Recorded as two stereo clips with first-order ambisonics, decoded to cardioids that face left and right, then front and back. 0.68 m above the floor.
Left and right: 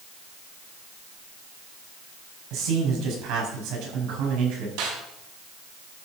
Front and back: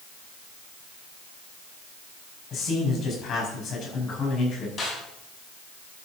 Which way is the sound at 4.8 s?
65° right.